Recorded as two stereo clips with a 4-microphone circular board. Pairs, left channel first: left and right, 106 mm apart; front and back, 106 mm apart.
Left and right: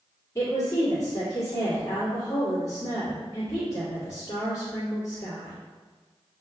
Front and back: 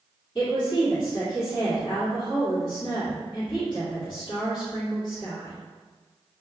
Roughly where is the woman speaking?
Ahead left.